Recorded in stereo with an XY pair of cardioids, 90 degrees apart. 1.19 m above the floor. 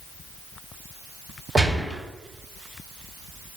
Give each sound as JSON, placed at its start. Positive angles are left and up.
{"t": 1.6, "sound": "a gunshot", "azimuth_deg": -30, "distance_m": 0.9}